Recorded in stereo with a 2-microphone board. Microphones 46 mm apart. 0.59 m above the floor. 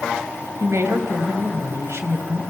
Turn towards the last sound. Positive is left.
turn(degrees=-75)  # may be behind; listen again after turning